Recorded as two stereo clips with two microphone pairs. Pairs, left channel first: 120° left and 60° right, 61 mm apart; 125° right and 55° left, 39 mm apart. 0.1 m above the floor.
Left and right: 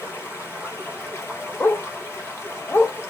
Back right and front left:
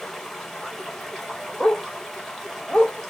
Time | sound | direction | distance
0.0 | running water | 155° left | 2.5 m
1.6 | a dog barking | 170° left | 0.7 m